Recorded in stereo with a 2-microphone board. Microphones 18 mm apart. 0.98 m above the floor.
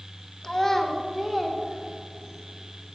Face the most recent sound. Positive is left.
turn(degrees=-30)  # may be behind; listen again after turning